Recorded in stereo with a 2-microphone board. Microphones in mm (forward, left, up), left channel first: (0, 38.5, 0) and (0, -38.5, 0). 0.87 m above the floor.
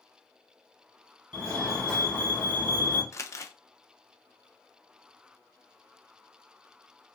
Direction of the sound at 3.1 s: 40° left (ahead or behind).